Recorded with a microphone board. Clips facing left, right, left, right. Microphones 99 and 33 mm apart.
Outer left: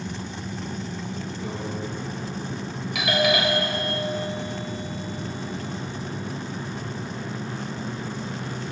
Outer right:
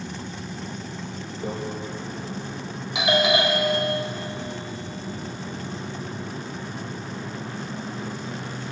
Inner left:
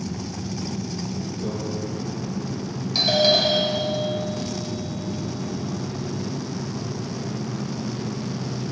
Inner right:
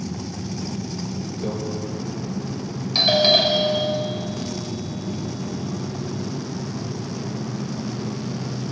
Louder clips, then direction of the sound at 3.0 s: Outer right 2 dB, inner right 2 dB; 25° right (ahead or behind).